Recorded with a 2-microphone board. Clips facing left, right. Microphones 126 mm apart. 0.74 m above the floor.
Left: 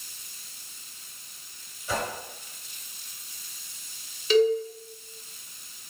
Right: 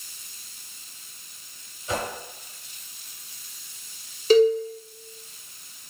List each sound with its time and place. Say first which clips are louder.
1.9 s a whoosh: right 1 dB; 20° right (ahead or behind), 2.5 m
4.3 s a cowbell: right 4 dB; 40° right (ahead or behind), 1.1 m